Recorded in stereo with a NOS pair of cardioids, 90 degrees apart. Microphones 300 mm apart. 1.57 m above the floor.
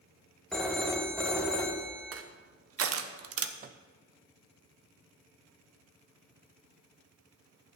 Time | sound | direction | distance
0.5 | a phone ringing | straight ahead | 1.6 m
2.1 | crushing | 50° right | 1.1 m
3.6 | a microwave | 30° right | 0.6 m